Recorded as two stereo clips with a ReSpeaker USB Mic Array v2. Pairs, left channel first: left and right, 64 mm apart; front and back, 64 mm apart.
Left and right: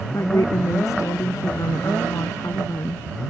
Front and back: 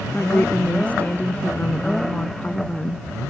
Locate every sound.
0.1 s a woman speaking: 65° left